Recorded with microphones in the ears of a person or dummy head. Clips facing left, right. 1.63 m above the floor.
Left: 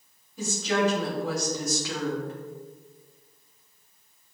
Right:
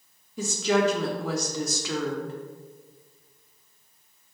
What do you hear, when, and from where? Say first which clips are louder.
0.4 s a woman speaking: right 2 dB; 65° right (ahead or behind), 1.1 m